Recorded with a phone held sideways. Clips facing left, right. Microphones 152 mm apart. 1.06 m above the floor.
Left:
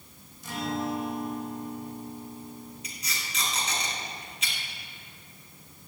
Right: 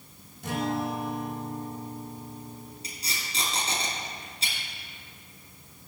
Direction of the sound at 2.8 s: 35° right (ahead or behind).